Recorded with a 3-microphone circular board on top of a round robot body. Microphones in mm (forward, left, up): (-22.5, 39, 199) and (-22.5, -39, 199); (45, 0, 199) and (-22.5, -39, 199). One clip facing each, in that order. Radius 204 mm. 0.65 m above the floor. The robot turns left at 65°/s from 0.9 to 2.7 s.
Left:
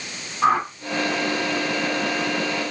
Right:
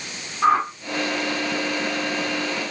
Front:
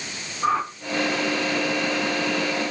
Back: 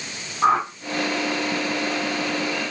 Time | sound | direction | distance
0.4 | a whoosh | 165° left | 0.9 m